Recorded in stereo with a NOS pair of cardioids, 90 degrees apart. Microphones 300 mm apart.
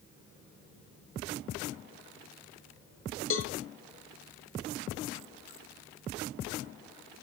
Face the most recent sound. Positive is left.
turn(degrees=45)